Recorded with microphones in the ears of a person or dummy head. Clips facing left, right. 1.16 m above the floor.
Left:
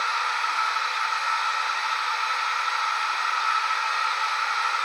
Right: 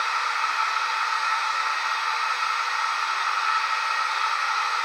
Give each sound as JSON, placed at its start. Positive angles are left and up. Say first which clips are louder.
{"t": 0.0, "sound": "a machine running", "louder": "even", "side_deg": -55, "distance_m": 1.1}